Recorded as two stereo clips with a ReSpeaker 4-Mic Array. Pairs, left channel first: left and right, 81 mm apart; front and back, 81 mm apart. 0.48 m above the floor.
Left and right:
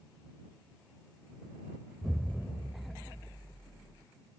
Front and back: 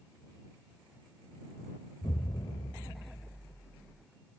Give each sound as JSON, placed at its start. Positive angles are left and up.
{"t": 2.0, "sound": "an explosion", "azimuth_deg": -10}